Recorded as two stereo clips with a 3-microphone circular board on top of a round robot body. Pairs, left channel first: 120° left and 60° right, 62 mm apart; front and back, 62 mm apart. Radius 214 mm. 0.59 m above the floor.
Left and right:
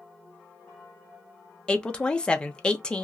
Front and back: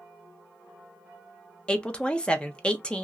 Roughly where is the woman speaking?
Ahead left.